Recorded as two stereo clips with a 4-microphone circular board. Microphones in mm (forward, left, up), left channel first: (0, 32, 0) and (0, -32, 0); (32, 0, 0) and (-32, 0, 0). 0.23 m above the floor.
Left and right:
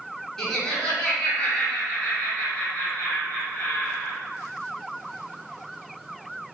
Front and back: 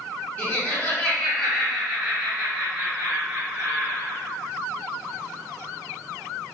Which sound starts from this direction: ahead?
Laughter, at 0.4 s.